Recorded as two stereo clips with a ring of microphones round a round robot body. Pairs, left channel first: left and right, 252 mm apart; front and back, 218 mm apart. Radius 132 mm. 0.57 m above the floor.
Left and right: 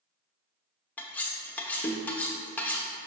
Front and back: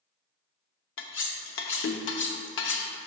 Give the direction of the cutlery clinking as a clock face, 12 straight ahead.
12 o'clock.